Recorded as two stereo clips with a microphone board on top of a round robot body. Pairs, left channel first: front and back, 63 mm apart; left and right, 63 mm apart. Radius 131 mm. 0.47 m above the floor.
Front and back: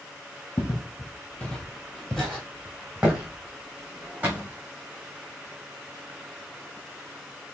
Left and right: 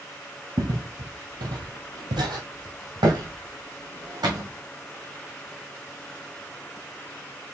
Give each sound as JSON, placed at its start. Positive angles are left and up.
{"t": 0.6, "sound": "footsteps", "azimuth_deg": -50, "distance_m": 0.9}